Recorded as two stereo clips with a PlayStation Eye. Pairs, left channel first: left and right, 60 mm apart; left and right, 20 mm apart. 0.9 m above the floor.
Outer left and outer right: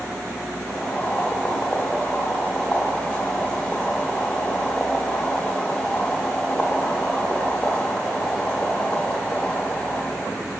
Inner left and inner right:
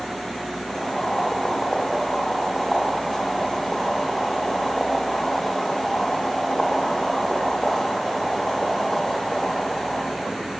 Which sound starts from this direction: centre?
Boiling, at 0.7 s.